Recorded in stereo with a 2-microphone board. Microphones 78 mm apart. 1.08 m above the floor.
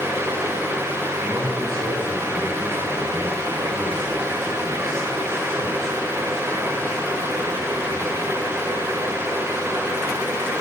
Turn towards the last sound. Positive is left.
turn(degrees=-85)